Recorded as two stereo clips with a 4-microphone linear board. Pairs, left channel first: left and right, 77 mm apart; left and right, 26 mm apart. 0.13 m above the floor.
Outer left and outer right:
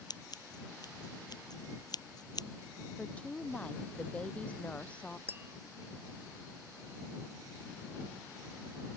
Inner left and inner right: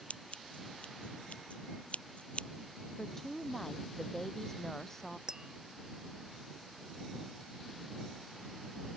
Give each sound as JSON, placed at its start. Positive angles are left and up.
{"t": 0.1, "sound": "scissors", "side_deg": 65}
{"t": 3.0, "sound": "a woman speaking", "side_deg": 15}
{"t": 5.3, "sound": "tapping", "side_deg": -30}